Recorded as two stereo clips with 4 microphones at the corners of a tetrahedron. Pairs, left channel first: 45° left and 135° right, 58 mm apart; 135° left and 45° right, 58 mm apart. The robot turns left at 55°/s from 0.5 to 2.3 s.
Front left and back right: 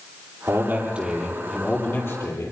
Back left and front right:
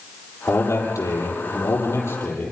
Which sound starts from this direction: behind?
A man speaking, at 0.5 s.